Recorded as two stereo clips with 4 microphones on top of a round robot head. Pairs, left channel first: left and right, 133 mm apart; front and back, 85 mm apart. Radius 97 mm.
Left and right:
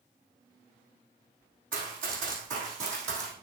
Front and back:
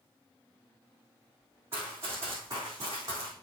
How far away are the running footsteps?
About 3.5 m.